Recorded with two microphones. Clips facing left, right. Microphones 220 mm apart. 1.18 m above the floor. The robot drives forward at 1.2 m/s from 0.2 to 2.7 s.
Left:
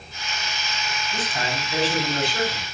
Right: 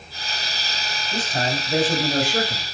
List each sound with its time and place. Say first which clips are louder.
1.1 s a man speaking: right 5 dB; 45° right (ahead or behind), 6.5 m; by 2.6 s 60° right (ahead or behind), 5 m